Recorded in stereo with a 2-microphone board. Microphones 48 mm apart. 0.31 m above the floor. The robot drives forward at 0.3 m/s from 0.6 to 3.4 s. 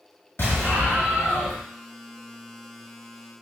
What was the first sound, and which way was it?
An explosion, 55° left (ahead or behind).